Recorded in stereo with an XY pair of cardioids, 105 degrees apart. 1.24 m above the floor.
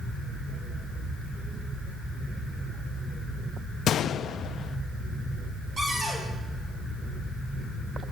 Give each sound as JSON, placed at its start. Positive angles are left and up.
{"t": 3.9, "sound": "a gunshot", "azimuth_deg": 65, "distance_m": 0.5}
{"t": 5.8, "sound": "a cupboard door", "azimuth_deg": -30, "distance_m": 10.0}